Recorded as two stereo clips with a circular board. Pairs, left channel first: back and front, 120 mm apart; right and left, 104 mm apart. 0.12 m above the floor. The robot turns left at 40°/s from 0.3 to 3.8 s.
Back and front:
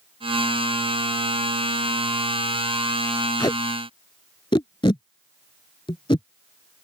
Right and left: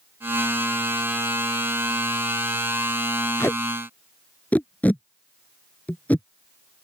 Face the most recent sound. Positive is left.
turn(degrees=-160)